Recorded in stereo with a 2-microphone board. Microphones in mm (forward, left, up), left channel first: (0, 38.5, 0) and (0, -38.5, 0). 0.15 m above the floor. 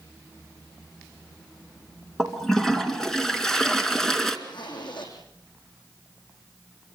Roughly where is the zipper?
Left.